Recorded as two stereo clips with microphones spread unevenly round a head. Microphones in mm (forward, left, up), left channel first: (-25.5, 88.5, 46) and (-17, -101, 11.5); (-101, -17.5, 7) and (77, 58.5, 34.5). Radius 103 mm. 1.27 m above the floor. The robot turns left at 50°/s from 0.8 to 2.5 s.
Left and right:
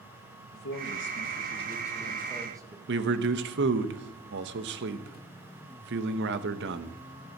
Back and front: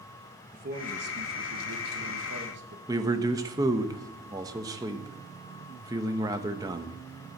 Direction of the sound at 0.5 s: 70° left.